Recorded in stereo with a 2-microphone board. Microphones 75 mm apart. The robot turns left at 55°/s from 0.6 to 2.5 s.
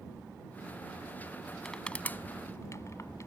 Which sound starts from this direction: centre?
Crushing, at 1.6 s.